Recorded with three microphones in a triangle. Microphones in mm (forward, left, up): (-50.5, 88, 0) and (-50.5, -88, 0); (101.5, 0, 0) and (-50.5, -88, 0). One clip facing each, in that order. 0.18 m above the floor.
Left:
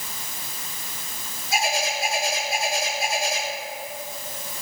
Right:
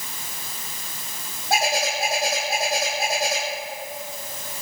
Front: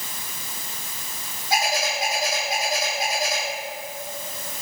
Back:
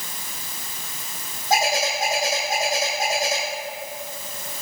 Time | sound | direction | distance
1.5 | a bird | 105° right | 5.5 m